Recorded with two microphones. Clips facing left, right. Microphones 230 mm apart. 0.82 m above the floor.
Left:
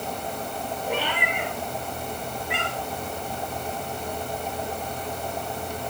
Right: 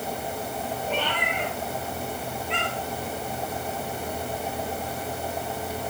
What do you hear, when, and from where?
0.9 s a cat meowing: 10° left (ahead or behind), 7.5 m